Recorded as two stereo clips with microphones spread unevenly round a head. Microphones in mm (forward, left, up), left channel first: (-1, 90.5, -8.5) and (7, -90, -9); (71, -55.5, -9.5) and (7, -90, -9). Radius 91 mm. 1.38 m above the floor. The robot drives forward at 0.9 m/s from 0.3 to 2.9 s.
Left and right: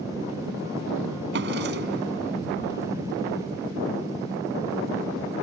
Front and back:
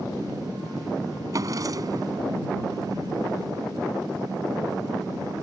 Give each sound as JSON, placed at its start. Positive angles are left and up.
{"t": 1.3, "sound": "a drawer", "azimuth_deg": -115}